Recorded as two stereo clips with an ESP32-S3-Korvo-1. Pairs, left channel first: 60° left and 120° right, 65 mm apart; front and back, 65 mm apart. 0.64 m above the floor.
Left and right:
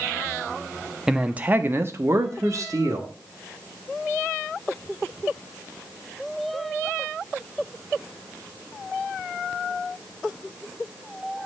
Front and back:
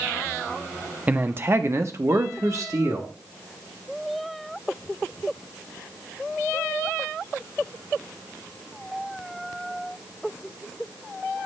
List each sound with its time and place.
1.1 s a man speaking: 170° left, 0.5 m; by 3.1 s 145° right, 1.3 m